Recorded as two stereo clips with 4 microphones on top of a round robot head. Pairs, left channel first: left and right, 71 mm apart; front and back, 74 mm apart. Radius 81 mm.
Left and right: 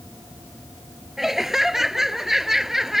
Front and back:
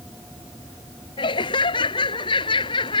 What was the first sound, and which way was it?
Laughter, 5° right.